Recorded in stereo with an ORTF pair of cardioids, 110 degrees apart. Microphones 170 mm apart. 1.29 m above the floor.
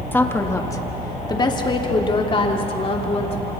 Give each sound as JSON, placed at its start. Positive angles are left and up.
{"t": 0.1, "sound": "a woman speaking", "azimuth_deg": 10, "distance_m": 1.8}